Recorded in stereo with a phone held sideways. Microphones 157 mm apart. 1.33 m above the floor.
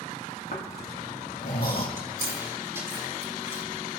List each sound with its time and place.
0.5 s snoring: 75° left (ahead or behind), 2.5 m
2.0 s chewing: 15° right (ahead or behind), 4 m